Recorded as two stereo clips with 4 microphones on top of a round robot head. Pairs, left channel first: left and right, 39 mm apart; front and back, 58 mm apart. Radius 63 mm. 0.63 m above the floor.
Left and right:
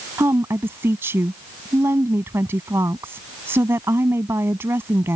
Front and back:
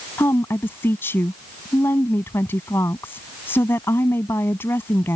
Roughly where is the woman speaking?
Ahead right.